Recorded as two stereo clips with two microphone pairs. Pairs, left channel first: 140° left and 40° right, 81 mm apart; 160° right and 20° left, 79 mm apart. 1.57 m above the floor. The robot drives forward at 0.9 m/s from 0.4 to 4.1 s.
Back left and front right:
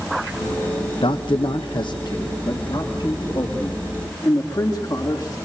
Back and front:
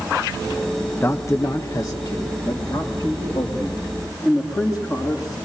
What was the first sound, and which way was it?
A man speaking, 145° left.